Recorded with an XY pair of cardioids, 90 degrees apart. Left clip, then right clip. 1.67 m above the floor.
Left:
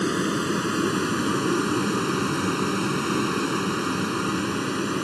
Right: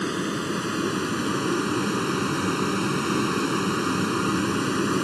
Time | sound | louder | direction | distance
0.0 | a vehicle | left 3 dB | 25° left | ?